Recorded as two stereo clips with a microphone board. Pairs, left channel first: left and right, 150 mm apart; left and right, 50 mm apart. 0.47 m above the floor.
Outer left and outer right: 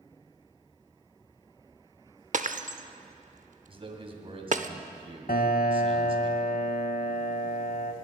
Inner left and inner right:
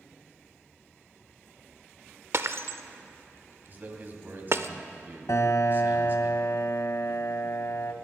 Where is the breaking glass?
55° right (ahead or behind), 0.7 m.